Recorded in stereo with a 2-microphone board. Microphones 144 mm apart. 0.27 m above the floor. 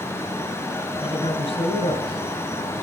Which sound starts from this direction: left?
A woman speaking, at 1.0 s.